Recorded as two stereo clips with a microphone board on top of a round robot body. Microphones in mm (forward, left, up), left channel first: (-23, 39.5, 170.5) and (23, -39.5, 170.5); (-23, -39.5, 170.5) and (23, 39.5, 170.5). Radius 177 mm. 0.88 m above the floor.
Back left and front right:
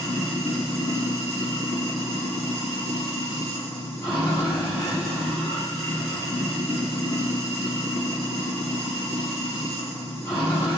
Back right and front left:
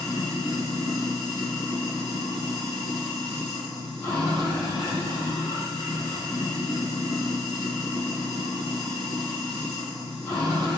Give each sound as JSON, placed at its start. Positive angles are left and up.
{"t": 0.0, "sound": "running water", "azimuth_deg": -175, "distance_m": 0.7}